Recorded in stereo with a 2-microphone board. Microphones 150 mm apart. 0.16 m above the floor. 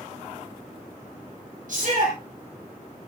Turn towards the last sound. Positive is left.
turn(degrees=-60)  # may be behind; listen again after turning